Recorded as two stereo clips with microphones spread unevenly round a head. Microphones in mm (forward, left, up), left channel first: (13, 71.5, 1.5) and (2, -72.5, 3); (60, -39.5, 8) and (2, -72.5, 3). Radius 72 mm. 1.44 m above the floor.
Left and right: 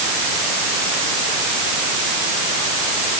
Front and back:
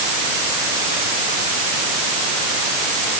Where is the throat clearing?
No throat clearing in this recording.